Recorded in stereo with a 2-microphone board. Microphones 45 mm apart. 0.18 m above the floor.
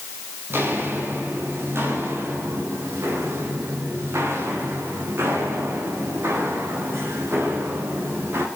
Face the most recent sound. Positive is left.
turn(degrees=-65)  # may be behind; listen again after turning